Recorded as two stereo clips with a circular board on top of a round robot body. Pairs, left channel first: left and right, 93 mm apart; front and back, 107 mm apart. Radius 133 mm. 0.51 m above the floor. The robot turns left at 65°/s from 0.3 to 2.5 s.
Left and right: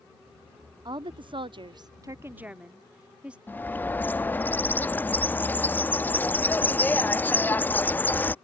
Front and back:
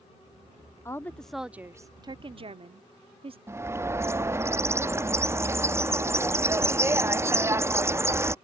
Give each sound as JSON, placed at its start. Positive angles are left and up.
{"t": 0.8, "sound": "a woman speaking", "azimuth_deg": -60}
{"t": 3.5, "sound": "a bird", "azimuth_deg": 140}